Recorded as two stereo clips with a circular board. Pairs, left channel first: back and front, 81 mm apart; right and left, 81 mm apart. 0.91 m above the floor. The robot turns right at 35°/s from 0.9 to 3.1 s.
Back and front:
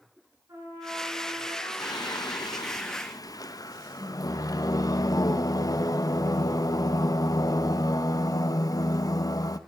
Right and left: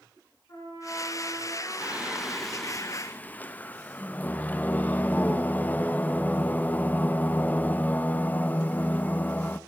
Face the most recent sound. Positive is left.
turn(degrees=-155)